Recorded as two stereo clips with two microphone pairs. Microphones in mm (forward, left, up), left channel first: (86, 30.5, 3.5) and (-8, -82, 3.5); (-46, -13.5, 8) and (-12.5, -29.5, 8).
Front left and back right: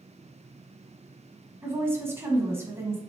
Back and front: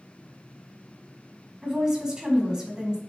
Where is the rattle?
No rattle in this recording.